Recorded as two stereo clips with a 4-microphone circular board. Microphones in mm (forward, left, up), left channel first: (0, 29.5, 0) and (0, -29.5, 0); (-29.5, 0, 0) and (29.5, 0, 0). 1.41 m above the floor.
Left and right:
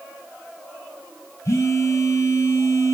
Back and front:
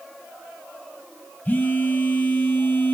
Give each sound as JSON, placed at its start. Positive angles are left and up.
{"t": 1.4, "sound": "a phone buzzing", "azimuth_deg": 120, "distance_m": 0.6}